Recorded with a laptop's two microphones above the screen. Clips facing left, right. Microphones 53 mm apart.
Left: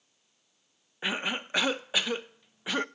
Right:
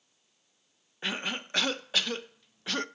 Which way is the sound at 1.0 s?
15° left (ahead or behind).